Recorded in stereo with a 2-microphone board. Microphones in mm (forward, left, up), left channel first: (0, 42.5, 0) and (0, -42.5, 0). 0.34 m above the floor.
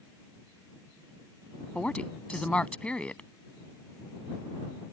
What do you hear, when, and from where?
1.8 s a woman speaking: 15° left (ahead or behind)